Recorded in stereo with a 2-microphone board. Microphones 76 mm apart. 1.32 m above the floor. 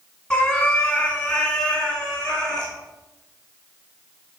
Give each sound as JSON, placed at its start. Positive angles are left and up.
{"t": 0.3, "sound": "a cat meowing", "side_deg": 15, "distance_m": 1.4}